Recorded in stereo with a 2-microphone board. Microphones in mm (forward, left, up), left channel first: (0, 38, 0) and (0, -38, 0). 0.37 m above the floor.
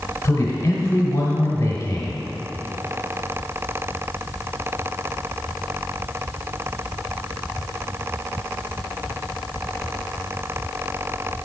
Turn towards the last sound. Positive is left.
turn(degrees=40)  # may be behind; listen again after turning